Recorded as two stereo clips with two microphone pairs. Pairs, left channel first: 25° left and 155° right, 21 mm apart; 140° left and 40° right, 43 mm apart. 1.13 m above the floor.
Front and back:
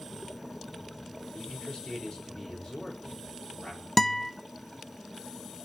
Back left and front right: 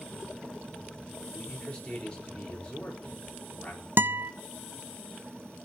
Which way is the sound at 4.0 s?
50° right.